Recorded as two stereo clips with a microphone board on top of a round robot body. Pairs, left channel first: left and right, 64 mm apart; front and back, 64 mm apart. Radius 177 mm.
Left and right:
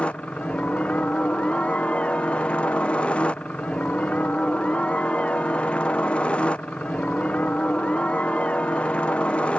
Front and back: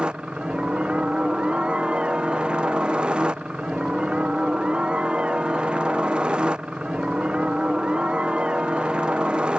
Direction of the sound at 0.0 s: 130° left.